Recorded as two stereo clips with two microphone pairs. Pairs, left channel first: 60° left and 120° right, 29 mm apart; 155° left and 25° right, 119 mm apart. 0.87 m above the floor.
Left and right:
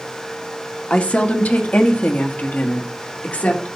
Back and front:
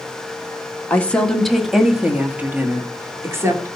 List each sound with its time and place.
0.9 s a woman speaking: 80° left, 1.2 m; by 3.7 s 40° left, 2.5 m